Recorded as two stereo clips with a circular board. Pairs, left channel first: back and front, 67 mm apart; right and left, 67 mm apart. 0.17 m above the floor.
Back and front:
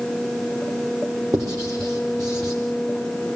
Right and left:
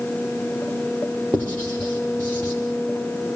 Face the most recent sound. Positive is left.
turn(degrees=-25)